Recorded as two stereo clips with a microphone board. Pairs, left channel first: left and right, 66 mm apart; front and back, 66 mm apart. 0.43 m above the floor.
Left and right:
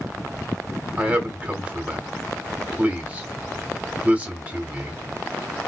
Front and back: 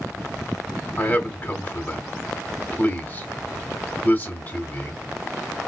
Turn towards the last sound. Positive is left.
turn(degrees=-40)